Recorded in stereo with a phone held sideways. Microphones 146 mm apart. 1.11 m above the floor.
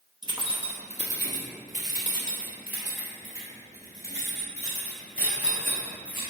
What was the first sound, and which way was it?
Keys jangling, 30° right (ahead or behind).